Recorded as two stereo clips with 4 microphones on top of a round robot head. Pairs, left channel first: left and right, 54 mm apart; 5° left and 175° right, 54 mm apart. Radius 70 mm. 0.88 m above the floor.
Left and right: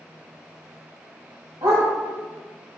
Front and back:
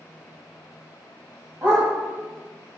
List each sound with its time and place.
1.6 s a dog barking: 105° right, 1.4 m